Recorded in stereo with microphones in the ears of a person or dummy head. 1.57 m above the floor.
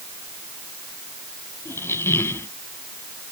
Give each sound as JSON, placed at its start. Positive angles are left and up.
{"t": 1.6, "sound": "a squeak", "side_deg": 15}